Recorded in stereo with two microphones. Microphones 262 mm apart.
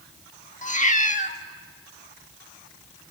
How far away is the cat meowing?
About 1.2 m.